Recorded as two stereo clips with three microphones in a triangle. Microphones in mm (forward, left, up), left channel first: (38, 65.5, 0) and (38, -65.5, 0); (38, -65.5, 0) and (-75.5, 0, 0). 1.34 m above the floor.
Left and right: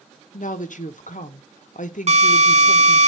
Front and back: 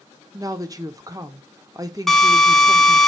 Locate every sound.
0.3 s a woman speaking: 90° left, 0.7 m
2.1 s a drill: 120° right, 1.1 m